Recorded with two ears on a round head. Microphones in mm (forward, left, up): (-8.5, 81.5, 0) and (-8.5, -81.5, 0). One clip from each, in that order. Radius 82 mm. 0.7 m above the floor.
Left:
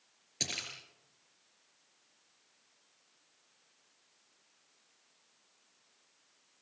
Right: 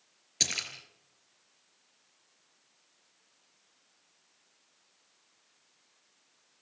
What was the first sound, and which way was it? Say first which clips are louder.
A splash: right 6 dB; 25° right (ahead or behind).